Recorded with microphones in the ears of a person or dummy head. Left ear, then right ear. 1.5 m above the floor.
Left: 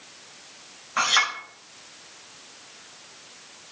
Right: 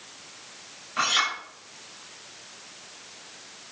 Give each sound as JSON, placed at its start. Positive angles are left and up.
{"t": 1.0, "sound": "a clink", "side_deg": 45, "distance_m": 6.5}